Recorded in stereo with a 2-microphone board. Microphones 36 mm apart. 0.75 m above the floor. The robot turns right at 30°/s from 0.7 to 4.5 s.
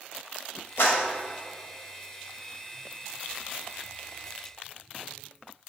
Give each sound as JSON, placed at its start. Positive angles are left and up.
{"t": 0.8, "sound": "a clap", "side_deg": 75, "distance_m": 3.0}